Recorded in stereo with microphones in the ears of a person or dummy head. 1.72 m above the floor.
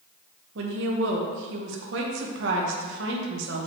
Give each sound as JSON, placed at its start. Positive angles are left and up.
{"t": 0.6, "sound": "a woman speaking", "side_deg": -75, "distance_m": 1.3}